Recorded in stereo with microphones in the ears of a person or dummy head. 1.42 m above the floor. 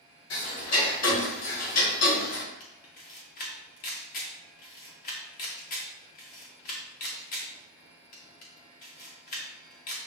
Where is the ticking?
85° left, 2.5 m.